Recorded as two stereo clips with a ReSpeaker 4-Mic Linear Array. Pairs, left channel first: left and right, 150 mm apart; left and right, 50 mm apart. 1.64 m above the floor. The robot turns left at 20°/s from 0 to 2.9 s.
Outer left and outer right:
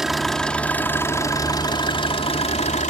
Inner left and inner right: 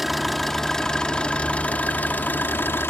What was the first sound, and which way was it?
An engine running, 175° right.